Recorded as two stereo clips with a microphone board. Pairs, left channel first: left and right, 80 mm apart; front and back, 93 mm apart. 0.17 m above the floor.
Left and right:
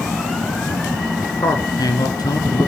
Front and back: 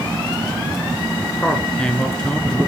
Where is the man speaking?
75° left, 2.5 m.